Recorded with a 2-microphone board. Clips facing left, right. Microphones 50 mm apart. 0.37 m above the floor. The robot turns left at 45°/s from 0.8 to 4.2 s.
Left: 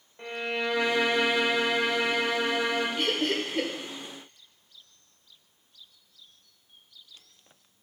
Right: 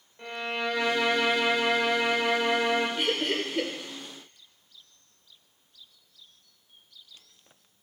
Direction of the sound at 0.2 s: 15° left (ahead or behind).